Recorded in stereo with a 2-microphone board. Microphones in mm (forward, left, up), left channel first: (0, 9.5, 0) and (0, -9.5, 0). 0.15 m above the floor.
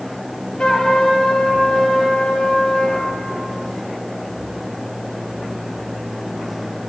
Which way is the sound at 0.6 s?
55° left (ahead or behind).